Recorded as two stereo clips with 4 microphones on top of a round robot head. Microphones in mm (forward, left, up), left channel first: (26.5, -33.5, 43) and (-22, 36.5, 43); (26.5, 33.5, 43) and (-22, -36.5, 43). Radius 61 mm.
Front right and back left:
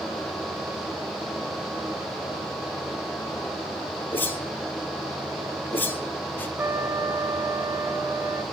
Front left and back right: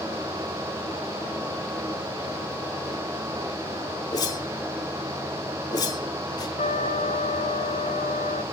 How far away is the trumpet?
About 2 m.